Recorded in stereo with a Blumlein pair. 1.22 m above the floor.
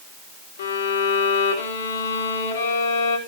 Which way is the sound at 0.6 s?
65° left.